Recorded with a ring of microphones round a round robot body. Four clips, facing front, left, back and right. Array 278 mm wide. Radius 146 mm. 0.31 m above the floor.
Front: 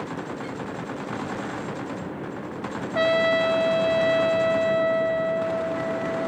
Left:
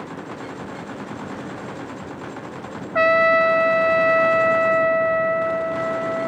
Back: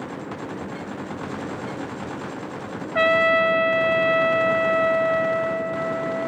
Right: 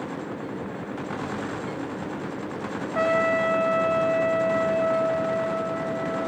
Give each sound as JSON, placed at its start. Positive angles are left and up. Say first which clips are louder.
{"t": 3.0, "sound": "a trumpet", "louder": "left 6 dB, back 2 dB", "azimuth_deg": 105, "distance_m": 0.7}